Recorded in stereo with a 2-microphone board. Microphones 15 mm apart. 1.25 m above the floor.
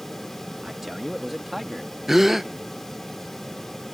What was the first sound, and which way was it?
A man speaking, 25° right (ahead or behind).